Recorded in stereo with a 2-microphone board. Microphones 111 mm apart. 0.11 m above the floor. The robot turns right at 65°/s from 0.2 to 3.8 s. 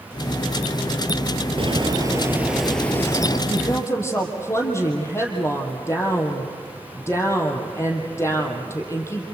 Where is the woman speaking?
45° left (ahead or behind), 3.5 m; by 9.2 s 25° left (ahead or behind), 3.5 m.